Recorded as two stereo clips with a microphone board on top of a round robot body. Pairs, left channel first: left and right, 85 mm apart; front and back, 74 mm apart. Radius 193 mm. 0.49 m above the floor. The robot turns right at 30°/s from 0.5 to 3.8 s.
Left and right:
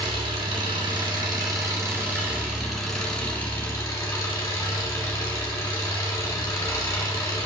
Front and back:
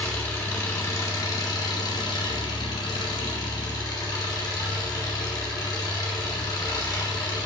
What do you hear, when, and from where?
0.0 s an engine running: 70° right, 2.0 m; by 7.5 s 30° left, 2.0 m